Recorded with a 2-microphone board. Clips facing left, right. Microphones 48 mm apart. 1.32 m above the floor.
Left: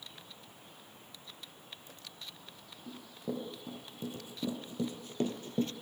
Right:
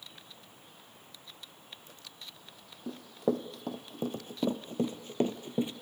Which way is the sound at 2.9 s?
60° right (ahead or behind).